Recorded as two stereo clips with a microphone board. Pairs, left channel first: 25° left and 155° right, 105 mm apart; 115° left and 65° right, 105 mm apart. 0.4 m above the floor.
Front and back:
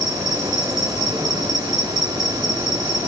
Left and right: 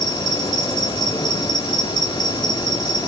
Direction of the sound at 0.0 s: 160° left.